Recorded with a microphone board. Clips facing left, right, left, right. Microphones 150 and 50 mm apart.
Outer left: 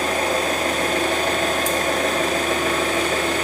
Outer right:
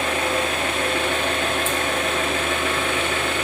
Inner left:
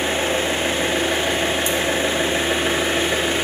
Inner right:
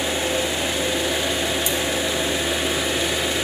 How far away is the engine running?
About 0.7 m.